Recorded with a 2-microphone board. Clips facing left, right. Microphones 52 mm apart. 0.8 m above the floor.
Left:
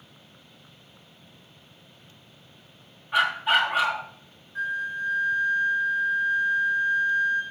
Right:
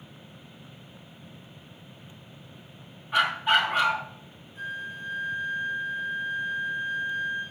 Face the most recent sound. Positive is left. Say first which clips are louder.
# left 7 dB
turn(degrees=80)